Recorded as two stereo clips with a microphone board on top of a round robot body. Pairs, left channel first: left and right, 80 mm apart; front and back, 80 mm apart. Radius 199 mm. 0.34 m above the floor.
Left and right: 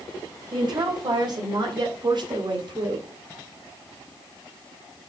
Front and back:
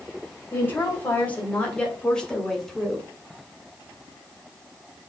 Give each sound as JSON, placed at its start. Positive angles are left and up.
{"t": 0.5, "sound": "a woman speaking", "azimuth_deg": -60, "distance_m": 3.0}